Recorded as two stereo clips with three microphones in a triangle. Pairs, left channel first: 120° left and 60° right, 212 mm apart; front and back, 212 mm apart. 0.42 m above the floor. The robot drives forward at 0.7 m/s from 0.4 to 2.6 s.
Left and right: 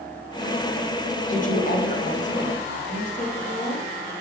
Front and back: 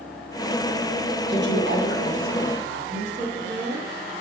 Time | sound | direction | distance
1.3 | a woman speaking | 165° left | 1.3 m